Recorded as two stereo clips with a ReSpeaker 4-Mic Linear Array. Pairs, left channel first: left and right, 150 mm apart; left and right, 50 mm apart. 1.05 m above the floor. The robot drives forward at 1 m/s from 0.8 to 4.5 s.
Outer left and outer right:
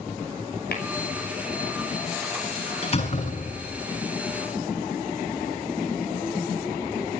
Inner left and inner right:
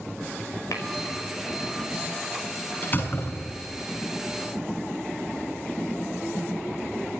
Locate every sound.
0.7 s tapping: 85° left, 5.5 m
2.8 s a door slam: 40° left (ahead or behind), 8 m; by 3.8 s 50° left (ahead or behind), 7.5 m